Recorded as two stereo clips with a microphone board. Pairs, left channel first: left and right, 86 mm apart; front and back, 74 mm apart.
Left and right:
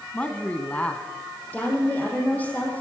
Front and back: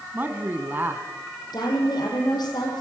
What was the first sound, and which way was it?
A man speaking, 150° left.